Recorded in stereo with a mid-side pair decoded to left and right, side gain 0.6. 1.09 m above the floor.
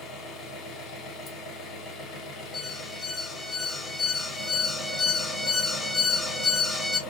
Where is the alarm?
25° left, 0.6 m.